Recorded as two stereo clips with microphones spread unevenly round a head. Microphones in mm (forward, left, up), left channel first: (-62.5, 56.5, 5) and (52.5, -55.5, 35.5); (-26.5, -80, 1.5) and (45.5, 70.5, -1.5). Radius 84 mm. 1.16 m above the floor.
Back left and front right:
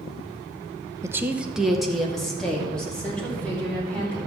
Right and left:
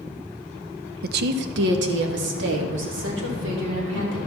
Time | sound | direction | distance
1.0 | a woman speaking | 30° left | 0.6 m